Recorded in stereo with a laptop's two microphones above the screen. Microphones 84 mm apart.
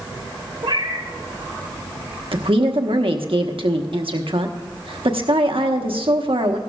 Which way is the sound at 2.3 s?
80° right.